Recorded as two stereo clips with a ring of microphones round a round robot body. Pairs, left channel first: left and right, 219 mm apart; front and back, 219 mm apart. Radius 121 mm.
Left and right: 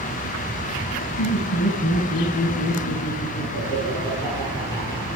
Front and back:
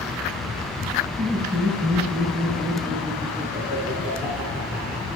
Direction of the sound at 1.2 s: 135° left.